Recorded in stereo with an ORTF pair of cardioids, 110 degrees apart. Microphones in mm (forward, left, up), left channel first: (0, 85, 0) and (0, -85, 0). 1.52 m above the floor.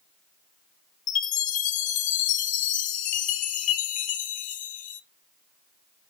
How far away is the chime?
About 0.6 m.